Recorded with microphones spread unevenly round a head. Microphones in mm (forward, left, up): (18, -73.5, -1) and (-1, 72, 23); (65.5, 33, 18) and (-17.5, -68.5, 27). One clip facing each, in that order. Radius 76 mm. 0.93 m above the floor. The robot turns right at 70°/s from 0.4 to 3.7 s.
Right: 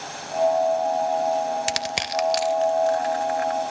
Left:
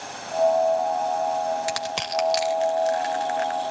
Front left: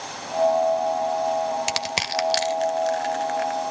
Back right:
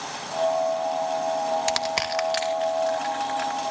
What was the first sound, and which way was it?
Crushing, 25° right.